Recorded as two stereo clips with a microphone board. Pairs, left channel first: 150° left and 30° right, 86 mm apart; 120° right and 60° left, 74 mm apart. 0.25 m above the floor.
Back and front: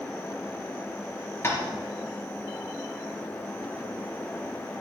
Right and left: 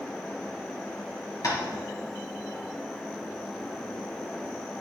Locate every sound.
1.4 s tapping: 150° right, 3.5 m